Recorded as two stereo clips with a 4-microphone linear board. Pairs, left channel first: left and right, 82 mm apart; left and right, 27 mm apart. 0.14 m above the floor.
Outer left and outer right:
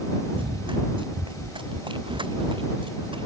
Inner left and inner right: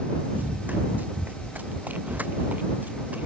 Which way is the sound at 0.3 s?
85° right.